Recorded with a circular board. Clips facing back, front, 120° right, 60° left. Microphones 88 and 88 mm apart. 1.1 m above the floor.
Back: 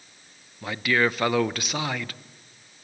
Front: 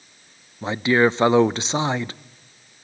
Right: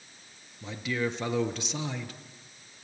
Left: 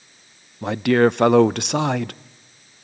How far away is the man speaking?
About 0.5 m.